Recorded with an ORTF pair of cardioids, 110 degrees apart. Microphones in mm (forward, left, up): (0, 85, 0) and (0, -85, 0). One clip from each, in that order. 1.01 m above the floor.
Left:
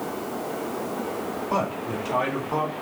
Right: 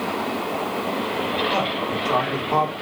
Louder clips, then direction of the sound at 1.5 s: Right 4 dB; 10° left.